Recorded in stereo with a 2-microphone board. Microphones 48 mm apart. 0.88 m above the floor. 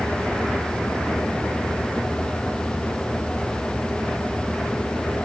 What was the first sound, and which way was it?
Only background noise.